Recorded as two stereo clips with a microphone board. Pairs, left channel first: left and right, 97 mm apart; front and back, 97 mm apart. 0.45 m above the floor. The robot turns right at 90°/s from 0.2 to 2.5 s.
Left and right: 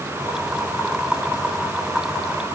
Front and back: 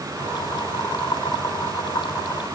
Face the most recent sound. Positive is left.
No sound to turn to.